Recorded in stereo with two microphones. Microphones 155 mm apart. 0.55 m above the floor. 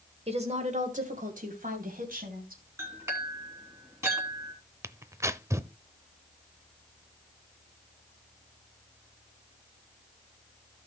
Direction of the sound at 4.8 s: 20° right (ahead or behind).